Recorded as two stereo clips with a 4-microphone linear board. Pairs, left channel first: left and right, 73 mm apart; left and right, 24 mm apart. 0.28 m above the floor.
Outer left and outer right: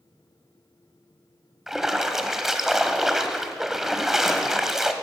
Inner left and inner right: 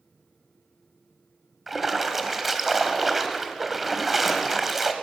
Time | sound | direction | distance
1.7 | a splash | 5° right (ahead or behind) | 1.0 m